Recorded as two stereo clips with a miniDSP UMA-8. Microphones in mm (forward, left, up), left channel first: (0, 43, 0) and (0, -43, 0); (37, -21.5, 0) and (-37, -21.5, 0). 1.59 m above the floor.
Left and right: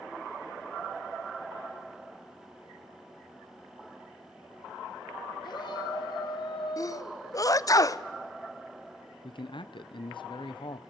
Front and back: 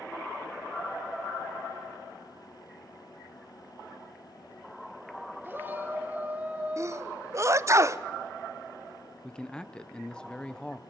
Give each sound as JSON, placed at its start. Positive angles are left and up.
{"t": 5.4, "sound": "a shout", "azimuth_deg": 120, "distance_m": 2.0}
{"t": 6.8, "sound": "a sneeze", "azimuth_deg": 135, "distance_m": 0.5}
{"t": 9.2, "sound": "a man speaking", "azimuth_deg": 80, "distance_m": 0.8}